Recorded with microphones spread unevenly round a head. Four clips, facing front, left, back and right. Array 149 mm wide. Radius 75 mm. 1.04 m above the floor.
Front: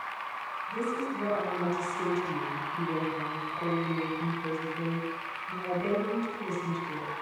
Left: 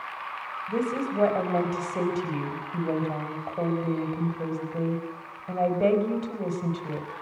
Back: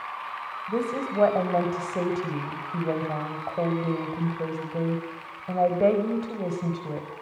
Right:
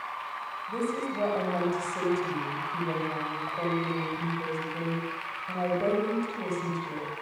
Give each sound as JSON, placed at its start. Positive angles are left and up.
{"t": 0.7, "sound": "a woman speaking", "azimuth_deg": 160, "distance_m": 4.5}